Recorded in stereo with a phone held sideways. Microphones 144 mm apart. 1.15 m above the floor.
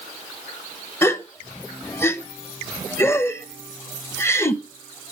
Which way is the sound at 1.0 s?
15° left (ahead or behind).